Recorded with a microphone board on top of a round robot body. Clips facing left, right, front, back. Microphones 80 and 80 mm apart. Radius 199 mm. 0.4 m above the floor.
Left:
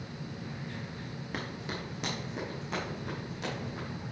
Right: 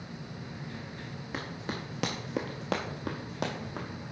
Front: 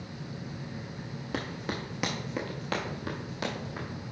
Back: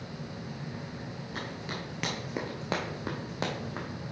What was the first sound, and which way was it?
Running footsteps, straight ahead.